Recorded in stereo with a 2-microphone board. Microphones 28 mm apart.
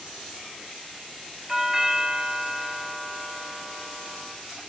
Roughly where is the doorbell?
Right.